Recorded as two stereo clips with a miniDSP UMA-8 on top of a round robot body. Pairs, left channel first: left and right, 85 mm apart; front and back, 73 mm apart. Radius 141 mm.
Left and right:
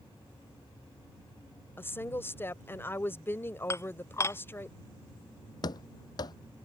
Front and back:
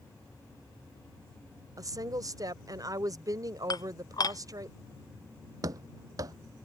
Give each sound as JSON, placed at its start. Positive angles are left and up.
{"t": 1.8, "sound": "a woman speaking", "azimuth_deg": 150}
{"t": 3.7, "sound": "dishes clattering", "azimuth_deg": 35}
{"t": 5.6, "sound": "running footsteps", "azimuth_deg": 135}